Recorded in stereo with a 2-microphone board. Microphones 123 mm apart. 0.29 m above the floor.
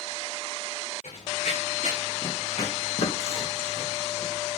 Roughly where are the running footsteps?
Left.